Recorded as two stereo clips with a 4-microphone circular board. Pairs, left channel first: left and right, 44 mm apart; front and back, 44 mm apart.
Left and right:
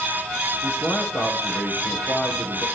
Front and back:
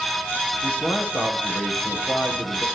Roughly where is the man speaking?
Ahead left.